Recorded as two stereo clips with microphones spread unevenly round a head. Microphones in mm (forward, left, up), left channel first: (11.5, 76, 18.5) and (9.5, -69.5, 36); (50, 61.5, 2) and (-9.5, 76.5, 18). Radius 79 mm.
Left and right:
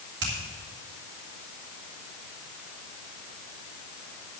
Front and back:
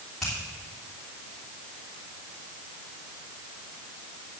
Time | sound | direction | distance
0.2 | a finger snap | 105° right | 3 m